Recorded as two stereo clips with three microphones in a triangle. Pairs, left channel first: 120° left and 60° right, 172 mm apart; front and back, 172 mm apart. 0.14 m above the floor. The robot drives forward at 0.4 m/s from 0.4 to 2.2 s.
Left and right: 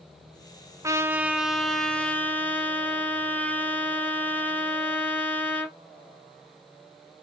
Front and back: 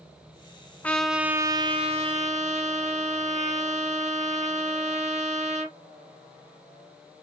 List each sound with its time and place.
0.8 s a trumpet: 60° right, 0.5 m; by 5.8 s 165° right, 0.7 m